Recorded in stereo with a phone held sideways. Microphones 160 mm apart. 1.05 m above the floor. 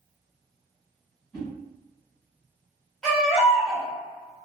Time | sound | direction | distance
1.3 | a whoosh | 15° left (ahead or behind) | 1.8 m
3.0 | a baby crying | 5° left (ahead or behind) | 1.3 m